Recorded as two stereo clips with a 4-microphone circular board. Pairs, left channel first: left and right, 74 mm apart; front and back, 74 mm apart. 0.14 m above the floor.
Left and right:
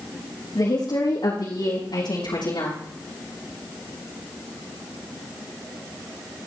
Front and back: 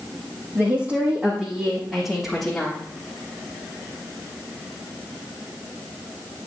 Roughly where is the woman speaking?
Behind left.